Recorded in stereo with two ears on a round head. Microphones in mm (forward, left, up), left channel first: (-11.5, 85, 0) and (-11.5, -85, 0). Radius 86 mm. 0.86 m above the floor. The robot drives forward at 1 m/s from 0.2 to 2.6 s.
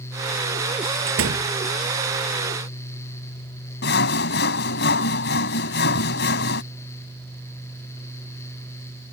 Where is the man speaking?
I don't hear a man speaking.